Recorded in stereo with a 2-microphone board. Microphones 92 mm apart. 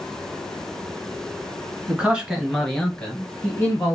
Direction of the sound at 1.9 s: 15° right (ahead or behind).